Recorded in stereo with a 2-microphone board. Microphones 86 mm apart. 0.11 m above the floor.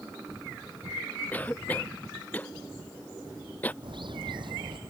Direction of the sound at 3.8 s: 65° right (ahead or behind).